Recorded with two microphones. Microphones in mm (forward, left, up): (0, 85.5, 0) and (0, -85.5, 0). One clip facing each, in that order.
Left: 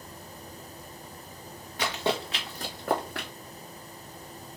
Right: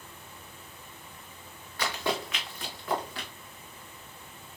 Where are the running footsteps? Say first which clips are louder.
Left 2 dB; 20° left (ahead or behind), 1.5 m; by 3.3 s 65° left (ahead or behind), 1.2 m.